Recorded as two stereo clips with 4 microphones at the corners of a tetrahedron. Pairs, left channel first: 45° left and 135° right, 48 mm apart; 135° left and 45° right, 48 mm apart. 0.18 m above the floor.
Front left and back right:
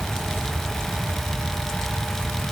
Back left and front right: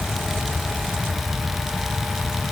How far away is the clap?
I don't hear a clap.